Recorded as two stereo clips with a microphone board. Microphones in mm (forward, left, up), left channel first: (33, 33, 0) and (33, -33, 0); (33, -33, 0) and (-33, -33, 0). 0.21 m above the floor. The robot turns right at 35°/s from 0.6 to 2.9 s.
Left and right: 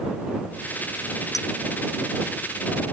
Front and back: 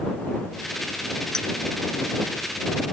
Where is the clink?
80° left.